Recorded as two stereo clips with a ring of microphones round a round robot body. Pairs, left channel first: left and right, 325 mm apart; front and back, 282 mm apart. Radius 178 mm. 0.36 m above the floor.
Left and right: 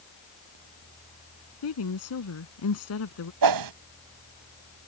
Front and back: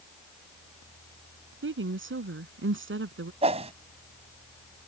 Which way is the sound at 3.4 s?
110° right.